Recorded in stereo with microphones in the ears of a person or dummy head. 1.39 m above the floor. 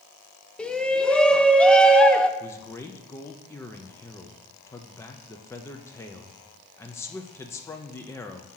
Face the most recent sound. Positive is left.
turn(degrees=10)  # may be behind; listen again after turning